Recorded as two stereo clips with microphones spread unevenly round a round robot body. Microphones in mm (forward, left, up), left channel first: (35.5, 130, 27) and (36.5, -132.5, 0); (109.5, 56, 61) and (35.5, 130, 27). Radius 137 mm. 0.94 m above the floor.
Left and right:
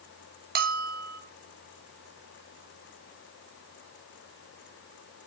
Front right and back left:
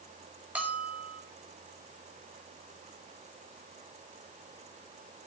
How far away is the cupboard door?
No cupboard door in this recording.